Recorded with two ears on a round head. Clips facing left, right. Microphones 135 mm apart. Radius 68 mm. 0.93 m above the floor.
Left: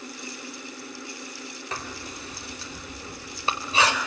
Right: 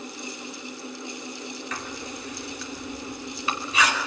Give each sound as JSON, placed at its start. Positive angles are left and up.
{"t": 1.7, "sound": "writing", "side_deg": 25, "distance_m": 4.0}